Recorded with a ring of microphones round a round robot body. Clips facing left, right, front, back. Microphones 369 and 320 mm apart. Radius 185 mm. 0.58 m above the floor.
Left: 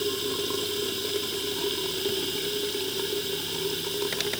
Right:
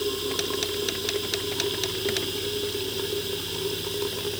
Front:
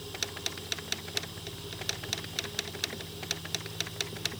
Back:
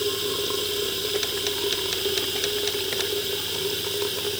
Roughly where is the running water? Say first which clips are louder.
Right 1 dB, back 16 dB; behind.